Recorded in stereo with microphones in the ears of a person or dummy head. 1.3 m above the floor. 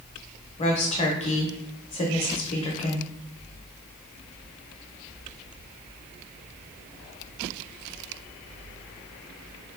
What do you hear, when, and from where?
0.6 s a woman speaking: 35° left (ahead or behind), 0.8 m